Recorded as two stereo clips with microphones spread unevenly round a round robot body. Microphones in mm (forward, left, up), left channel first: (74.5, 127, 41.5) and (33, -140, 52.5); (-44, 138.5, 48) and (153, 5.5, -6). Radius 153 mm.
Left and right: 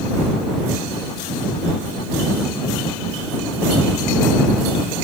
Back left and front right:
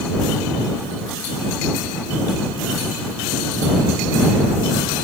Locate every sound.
Only background noise.